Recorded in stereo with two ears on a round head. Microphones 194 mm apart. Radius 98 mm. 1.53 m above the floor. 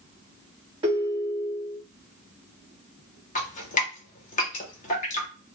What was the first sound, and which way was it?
A ringtone, 25° right (ahead or behind).